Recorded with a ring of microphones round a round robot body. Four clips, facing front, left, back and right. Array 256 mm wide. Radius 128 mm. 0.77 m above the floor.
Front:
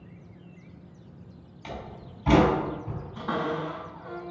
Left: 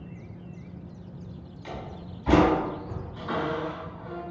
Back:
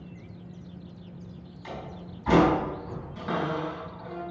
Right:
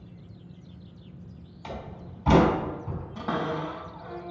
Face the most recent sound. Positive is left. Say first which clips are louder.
# even, even
turn(degrees=-110)